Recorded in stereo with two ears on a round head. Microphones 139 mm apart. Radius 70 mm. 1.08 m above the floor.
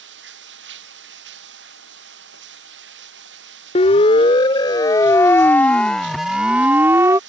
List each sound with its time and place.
0.0 s running water: 90° right
3.8 s a siren: 40° left (ahead or behind); by 7.2 s 20° right (ahead or behind)